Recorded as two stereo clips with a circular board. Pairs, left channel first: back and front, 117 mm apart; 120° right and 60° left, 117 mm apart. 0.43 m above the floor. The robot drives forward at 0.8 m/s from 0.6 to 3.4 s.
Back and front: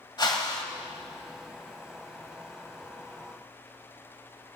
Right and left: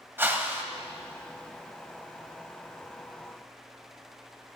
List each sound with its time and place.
0.2 s a whoosh: 130° left, 1.2 m